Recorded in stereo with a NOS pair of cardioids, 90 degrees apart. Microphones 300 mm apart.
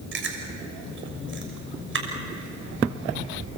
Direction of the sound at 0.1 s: 40° right.